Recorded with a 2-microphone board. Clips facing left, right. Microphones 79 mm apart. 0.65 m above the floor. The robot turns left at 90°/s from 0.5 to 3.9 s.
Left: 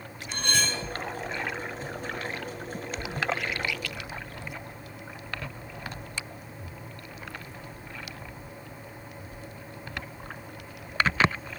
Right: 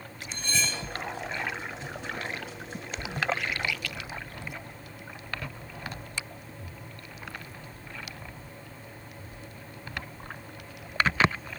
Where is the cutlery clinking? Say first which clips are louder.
Left 3 dB; 65° left, 1.5 m; by 0.8 s 35° left, 1.5 m.